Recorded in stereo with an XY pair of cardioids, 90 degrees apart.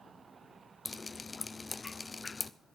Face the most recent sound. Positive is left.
turn(degrees=20)